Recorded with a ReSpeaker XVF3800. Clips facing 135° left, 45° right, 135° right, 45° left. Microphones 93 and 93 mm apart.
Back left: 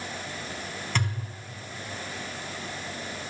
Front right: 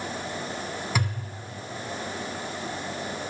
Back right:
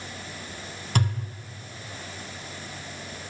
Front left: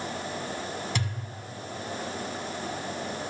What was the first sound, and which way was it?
A thud, 125° right.